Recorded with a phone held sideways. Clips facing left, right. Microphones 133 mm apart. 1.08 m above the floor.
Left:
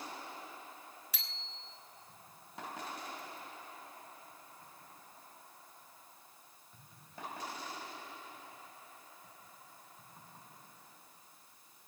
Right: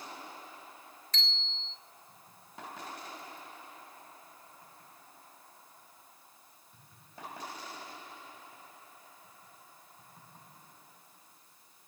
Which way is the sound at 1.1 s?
10° left (ahead or behind).